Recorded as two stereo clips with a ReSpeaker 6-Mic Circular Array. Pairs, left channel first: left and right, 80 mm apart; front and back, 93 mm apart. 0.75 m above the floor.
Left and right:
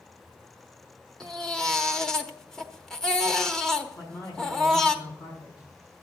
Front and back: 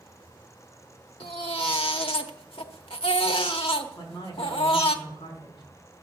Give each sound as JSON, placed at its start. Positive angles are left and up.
{"t": 1.2, "sound": "a baby crying", "azimuth_deg": 5, "distance_m": 1.0}
{"t": 4.0, "sound": "a man speaking", "azimuth_deg": 45, "distance_m": 5.0}